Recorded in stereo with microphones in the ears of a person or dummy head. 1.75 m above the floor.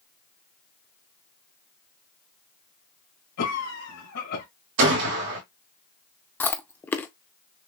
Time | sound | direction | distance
3.4 | a cough | 80° left | 2.5 m
4.8 | a gunshot | 60° right (ahead or behind) | 1.9 m
6.4 | chewing | 10° left (ahead or behind) | 0.5 m